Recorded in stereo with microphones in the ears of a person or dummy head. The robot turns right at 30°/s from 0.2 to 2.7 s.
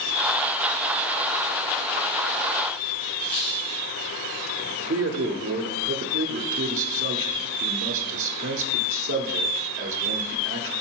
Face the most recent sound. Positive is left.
turn(degrees=-55)  # may be behind; listen again after turning